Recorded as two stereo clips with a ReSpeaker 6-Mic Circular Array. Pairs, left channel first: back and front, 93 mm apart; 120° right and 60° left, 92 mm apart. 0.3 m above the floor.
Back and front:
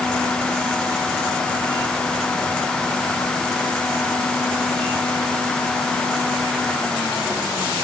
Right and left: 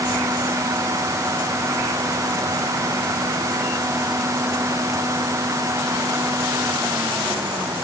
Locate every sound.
Only background noise.